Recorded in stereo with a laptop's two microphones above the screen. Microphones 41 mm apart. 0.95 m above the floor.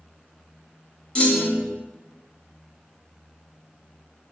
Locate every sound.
1.1 s a clunk: 25° left (ahead or behind), 0.5 m